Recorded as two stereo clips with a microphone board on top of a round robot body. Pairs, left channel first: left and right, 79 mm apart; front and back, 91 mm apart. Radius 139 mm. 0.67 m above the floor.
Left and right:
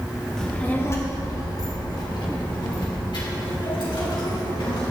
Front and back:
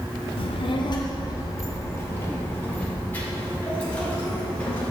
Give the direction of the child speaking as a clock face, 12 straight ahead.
12 o'clock.